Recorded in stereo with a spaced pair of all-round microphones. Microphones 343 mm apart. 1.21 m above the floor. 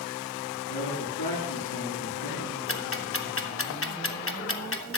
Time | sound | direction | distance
0.7 | a man speaking | 75° left (ahead or behind) | 7.5 m
2.7 | ticking | 40° left (ahead or behind) | 1.0 m